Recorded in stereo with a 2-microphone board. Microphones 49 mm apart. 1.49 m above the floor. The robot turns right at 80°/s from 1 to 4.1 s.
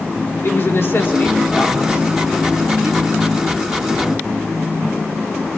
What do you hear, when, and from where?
0.4 s a woman speaking: 50° left (ahead or behind), 3.5 m; by 3.2 s 60° right (ahead or behind), 3.5 m